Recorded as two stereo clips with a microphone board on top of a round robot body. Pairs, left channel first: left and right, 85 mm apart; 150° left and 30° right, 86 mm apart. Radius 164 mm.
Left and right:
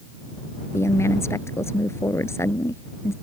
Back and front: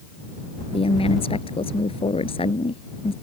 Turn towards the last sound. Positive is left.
turn(degrees=150)